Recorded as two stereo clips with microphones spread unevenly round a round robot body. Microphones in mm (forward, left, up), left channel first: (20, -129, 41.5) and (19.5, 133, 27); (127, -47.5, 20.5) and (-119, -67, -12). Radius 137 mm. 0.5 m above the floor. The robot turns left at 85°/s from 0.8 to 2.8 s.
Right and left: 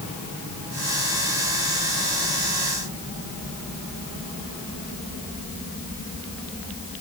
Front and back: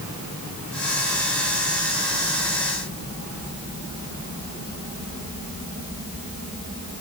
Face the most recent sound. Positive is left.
No sound to turn to.